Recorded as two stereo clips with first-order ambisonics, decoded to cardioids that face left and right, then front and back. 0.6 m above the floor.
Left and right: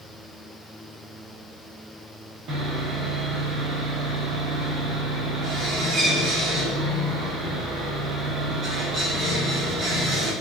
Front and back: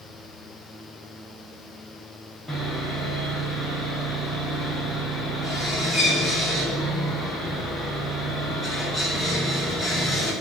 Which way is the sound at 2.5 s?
75° right.